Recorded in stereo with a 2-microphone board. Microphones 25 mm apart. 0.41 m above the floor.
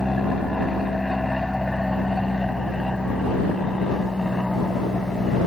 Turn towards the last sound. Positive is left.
turn(degrees=10)  # may be behind; listen again after turning